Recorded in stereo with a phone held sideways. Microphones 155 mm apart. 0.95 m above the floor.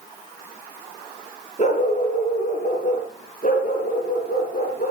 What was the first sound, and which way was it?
A dog barking, 50° left (ahead or behind).